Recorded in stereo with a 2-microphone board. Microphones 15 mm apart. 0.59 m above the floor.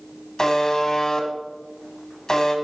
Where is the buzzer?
35° left (ahead or behind), 1.5 m.